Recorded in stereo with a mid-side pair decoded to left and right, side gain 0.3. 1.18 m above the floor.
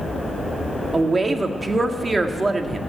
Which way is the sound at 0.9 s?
40° right.